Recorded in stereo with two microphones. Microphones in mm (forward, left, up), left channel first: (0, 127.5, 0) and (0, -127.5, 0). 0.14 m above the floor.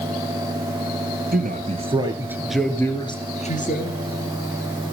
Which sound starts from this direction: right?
A man speaking, at 1.3 s.